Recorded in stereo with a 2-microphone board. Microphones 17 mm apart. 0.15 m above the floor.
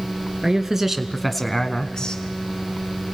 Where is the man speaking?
25° right (ahead or behind), 1.9 m; by 2.2 s 45° left (ahead or behind), 1.6 m.